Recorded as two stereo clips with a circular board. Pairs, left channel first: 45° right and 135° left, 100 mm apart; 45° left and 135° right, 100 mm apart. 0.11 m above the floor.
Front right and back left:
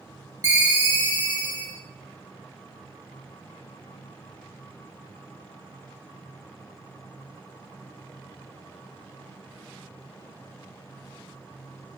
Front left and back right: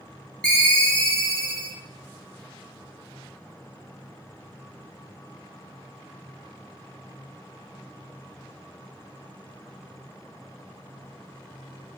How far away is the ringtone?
About 0.5 m.